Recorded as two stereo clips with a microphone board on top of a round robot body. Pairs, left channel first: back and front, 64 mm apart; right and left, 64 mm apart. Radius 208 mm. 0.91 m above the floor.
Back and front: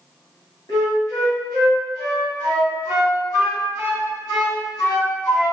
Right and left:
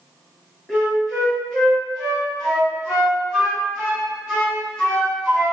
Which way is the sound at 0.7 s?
175° left.